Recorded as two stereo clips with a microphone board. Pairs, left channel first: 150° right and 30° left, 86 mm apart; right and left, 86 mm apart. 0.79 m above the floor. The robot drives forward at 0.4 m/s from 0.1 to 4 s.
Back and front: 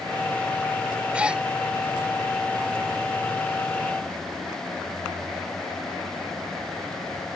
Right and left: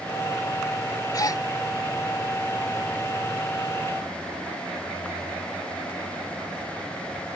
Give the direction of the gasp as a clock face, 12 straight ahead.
2 o'clock.